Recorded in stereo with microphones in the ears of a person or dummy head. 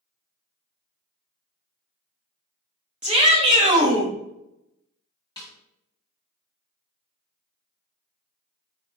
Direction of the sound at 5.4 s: 30° left (ahead or behind).